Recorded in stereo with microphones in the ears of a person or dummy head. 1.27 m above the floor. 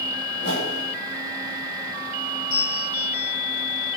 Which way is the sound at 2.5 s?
75° left (ahead or behind).